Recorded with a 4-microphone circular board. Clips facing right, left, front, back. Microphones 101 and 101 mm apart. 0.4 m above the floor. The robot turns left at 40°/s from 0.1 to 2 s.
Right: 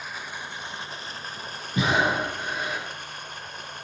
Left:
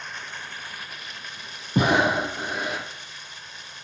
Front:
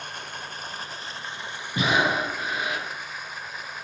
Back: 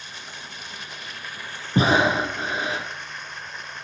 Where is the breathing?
130° left, 3 m; by 2.9 s 120° left, 3 m.